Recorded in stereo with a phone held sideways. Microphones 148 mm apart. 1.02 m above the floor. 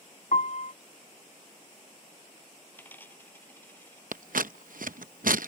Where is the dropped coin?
15° left (ahead or behind).